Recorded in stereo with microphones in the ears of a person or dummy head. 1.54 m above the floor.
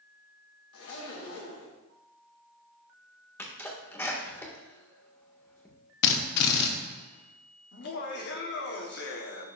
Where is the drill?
60° left (ahead or behind), 0.9 m.